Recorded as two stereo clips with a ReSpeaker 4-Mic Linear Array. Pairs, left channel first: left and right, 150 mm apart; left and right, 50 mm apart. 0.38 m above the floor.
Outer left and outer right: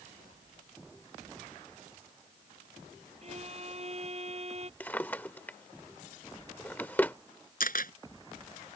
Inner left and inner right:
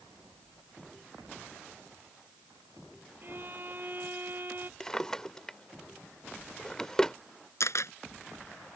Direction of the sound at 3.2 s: 45° right (ahead or behind).